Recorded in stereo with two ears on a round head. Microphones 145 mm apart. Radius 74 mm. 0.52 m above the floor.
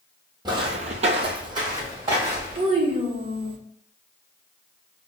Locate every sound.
0.5 s footsteps: 25° right (ahead or behind), 0.8 m; by 2.6 s 15° right (ahead or behind), 2.5 m
2.5 s a child speaking: 35° right (ahead or behind), 1.0 m